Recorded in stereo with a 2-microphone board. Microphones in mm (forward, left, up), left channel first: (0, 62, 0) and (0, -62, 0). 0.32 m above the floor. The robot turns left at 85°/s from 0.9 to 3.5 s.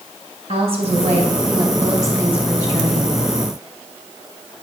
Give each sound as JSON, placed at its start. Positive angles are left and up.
{"t": 0.5, "sound": "a woman speaking", "azimuth_deg": -80, "distance_m": 2.0}